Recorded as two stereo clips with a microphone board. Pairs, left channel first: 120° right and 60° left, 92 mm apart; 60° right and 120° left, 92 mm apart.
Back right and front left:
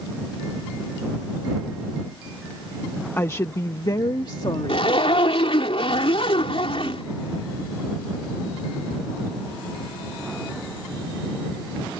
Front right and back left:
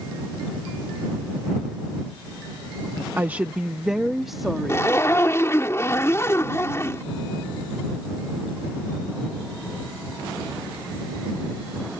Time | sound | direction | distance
3.2 | a woman speaking | straight behind | ?
4.7 | a zipper | 120° right | ?